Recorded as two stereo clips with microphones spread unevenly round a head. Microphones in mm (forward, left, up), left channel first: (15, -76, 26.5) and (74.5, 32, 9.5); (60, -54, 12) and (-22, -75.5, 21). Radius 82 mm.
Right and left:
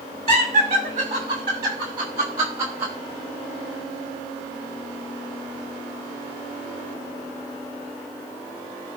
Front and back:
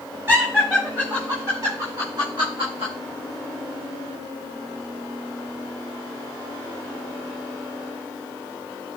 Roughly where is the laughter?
Behind left.